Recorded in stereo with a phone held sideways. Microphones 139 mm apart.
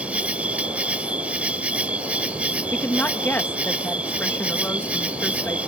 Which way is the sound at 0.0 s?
10° right (ahead or behind).